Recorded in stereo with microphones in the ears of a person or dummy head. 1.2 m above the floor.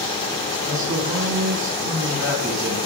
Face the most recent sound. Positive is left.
turn(degrees=-15)  # may be behind; listen again after turning